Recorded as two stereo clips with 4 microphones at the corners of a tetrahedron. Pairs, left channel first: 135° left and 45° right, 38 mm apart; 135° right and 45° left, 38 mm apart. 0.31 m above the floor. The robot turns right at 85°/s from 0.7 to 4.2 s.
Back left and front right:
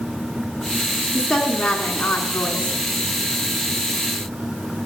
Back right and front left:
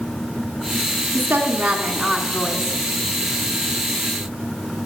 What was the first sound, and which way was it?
A woman speaking, 55° left.